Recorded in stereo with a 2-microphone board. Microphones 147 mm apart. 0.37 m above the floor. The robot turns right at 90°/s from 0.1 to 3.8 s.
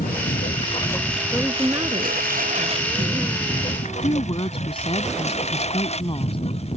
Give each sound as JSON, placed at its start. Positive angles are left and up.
{"t": 0.0, "sound": "a lawn mower", "side_deg": 90}
{"t": 1.3, "sound": "a woman speaking", "side_deg": 20}
{"t": 3.9, "sound": "a woman speaking", "side_deg": 40}